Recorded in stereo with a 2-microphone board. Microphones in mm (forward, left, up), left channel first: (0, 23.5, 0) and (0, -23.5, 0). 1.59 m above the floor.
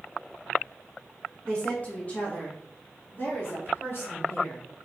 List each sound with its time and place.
1.4 s a woman speaking: 20° left (ahead or behind), 2 m; by 4.7 s 60° left (ahead or behind), 3.5 m